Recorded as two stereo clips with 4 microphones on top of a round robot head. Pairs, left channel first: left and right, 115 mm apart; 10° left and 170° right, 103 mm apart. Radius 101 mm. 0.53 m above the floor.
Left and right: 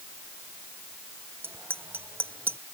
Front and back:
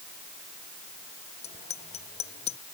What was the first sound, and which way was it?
A bicycle bell, 20° right.